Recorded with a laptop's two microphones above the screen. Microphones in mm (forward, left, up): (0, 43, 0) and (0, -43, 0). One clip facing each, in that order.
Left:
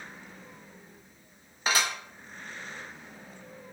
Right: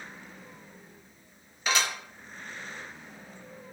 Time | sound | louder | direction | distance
1.7 | dishes clattering | even | 30° left (ahead or behind) | 0.9 m